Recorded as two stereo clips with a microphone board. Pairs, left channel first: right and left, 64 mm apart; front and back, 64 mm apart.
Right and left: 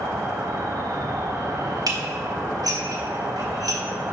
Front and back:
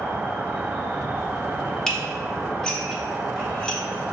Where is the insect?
120° left, 0.7 m.